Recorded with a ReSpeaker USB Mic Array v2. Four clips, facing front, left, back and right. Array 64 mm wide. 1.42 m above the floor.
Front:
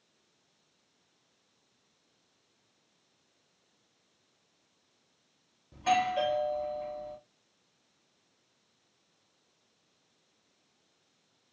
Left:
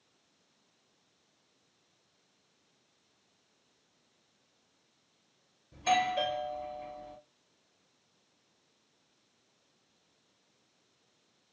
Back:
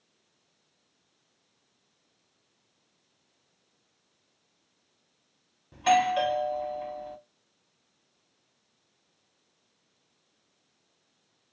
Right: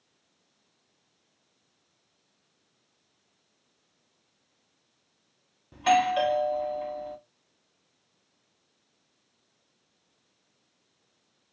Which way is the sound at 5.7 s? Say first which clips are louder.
Right 6 dB, back 5 dB; 120° right.